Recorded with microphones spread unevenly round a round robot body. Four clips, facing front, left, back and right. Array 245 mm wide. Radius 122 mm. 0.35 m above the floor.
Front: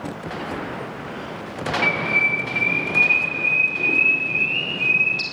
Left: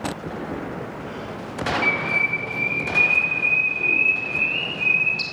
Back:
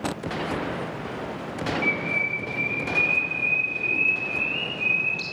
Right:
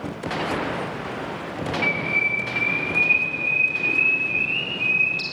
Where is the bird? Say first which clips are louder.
Left 1 dB, front 5 dB; 10° right, 5.5 m.